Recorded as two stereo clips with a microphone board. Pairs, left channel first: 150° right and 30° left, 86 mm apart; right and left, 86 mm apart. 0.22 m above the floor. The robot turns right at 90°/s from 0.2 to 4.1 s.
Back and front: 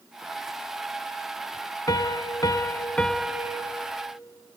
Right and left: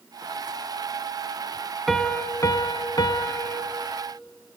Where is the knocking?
I don't hear knocking.